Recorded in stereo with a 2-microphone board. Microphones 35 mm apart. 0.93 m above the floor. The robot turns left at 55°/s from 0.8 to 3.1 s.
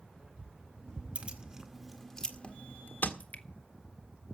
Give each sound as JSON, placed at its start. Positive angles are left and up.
{"t": 1.1, "sound": "keys jangling", "side_deg": -40, "distance_m": 1.9}
{"t": 3.2, "sound": "dripping", "side_deg": 50, "distance_m": 1.5}